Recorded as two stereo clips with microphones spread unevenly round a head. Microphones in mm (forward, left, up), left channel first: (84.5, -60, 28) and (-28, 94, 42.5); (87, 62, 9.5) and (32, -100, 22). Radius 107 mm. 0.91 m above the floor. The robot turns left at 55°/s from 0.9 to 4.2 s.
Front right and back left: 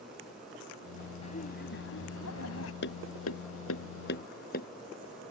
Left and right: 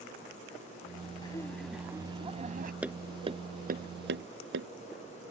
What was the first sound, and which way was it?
Laughter, 5° left.